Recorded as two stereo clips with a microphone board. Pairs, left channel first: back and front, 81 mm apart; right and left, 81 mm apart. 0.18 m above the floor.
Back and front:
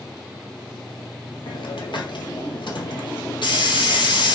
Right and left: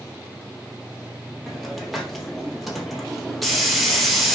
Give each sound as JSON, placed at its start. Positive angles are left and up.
{"t": 1.5, "sound": "a hiss", "azimuth_deg": 180, "distance_m": 1.6}